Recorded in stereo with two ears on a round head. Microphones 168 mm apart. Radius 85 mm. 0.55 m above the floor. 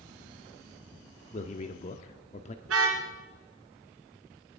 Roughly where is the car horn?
Right.